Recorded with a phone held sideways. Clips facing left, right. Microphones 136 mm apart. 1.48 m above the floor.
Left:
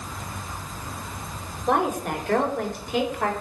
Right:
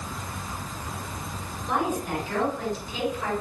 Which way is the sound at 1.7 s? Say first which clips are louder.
Left 4 dB; 80° left.